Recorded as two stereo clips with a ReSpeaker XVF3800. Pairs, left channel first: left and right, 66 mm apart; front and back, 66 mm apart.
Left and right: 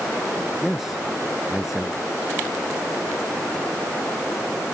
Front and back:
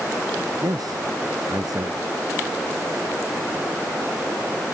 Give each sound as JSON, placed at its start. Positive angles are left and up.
{"t": 0.6, "sound": "a man speaking", "azimuth_deg": -175}